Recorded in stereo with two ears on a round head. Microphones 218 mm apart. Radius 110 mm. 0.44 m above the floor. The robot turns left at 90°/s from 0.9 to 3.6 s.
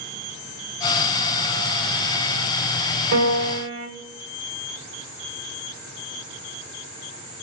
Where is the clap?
No clap in this recording.